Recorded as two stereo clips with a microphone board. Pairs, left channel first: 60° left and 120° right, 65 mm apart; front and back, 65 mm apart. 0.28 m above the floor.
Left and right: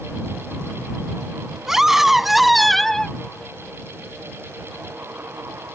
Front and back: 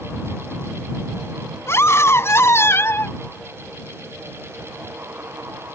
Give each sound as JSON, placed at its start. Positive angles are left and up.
{"t": 1.7, "sound": "a scream", "azimuth_deg": -40}